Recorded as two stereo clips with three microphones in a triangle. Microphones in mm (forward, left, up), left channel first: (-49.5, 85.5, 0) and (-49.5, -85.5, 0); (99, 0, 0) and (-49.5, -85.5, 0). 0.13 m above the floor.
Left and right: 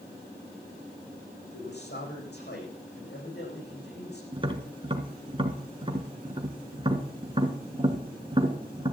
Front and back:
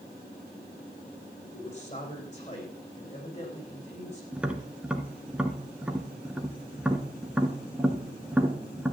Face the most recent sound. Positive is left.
turn(degrees=-70)